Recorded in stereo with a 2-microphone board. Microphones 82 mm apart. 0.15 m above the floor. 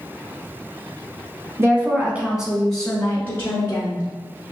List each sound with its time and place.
1.6 s a woman speaking: 30° right (ahead or behind), 1.2 m; by 4.0 s 35° left (ahead or behind), 1.8 m